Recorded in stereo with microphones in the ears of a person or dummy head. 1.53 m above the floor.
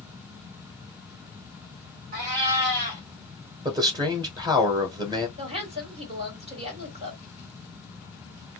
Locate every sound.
2.1 s a cat meowing: 45° right (ahead or behind), 1.5 m
3.6 s a man speaking: 25° right (ahead or behind), 0.8 m
5.4 s a woman speaking: 30° right (ahead or behind), 1.3 m